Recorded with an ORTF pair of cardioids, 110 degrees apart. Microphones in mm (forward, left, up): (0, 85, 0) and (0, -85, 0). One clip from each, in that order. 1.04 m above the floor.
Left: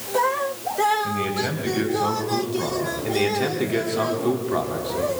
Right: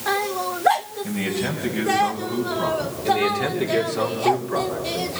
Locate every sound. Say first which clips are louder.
1.0 s a man speaking: left 2 dB; 5° left, 5 m; by 2.9 s straight ahead, 6.5 m
3.0 s a man speaking: right 3 dB; 5° right, 3.5 m